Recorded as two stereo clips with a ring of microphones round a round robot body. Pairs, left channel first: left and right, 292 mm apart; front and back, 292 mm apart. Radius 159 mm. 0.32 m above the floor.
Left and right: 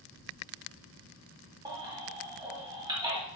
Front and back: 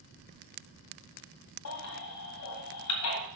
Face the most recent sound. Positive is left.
turn(degrees=-15)